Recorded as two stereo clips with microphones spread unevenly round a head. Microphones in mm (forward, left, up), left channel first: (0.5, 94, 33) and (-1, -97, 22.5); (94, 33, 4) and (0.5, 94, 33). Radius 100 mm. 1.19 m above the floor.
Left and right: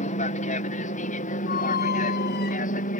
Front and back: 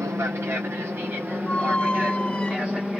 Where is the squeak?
50° left.